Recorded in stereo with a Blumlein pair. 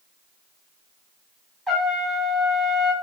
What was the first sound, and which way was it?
A trumpet, straight ahead.